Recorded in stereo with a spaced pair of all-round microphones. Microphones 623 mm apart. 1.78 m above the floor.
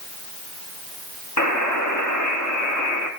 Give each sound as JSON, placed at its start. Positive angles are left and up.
{"t": 1.4, "sound": "a buzzer", "side_deg": 25, "distance_m": 3.5}